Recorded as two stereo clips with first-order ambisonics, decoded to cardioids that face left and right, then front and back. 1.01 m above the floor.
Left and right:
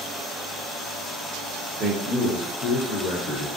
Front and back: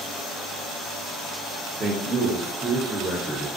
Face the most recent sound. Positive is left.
turn(degrees=105)